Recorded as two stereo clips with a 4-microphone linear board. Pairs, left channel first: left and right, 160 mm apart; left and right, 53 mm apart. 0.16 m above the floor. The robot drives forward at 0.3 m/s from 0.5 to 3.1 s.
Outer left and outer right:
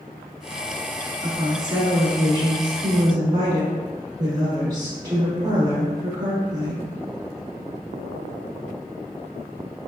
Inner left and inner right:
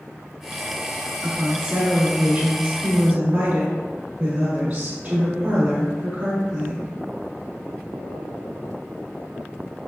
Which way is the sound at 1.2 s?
25° right (ahead or behind).